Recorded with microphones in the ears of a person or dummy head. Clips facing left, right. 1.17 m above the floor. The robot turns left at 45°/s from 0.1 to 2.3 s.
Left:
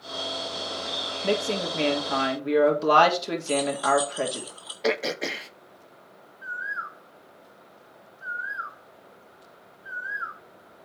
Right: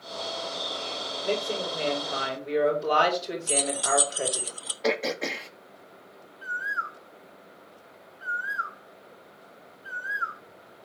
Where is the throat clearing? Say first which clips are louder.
Left 1 dB; centre (ahead or behind), 0.6 m.